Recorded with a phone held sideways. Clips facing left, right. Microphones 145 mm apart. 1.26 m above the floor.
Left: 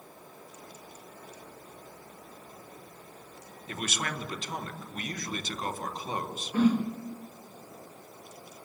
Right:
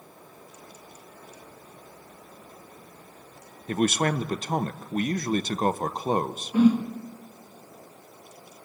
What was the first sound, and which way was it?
A man speaking, 45° right (ahead or behind).